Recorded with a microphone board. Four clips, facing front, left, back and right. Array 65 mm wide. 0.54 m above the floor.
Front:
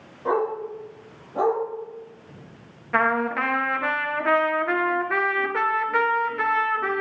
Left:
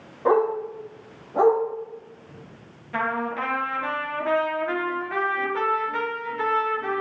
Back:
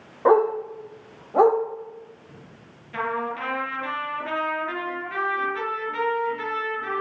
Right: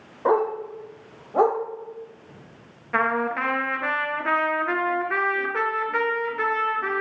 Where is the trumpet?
30° right, 2 m.